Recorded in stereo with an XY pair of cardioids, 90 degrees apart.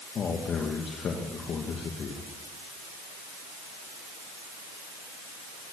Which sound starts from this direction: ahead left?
A man speaking, at 0.1 s.